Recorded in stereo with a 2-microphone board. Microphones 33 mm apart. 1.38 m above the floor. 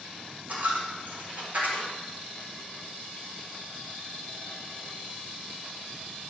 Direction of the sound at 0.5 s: 60° right (ahead or behind).